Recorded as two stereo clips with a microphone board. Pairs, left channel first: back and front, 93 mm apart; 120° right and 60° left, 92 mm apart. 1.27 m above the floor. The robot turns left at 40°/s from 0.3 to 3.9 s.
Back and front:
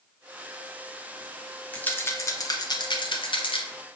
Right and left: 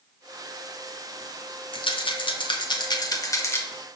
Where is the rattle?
105° right, 0.6 m; by 3.6 s 175° left, 0.6 m.